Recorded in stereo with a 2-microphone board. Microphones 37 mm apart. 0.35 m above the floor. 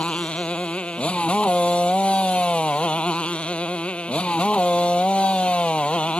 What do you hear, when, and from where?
0.0 s a motorcycle: 30° left (ahead or behind)